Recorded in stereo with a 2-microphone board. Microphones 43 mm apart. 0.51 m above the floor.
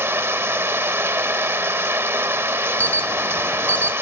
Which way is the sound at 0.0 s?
75° right (ahead or behind).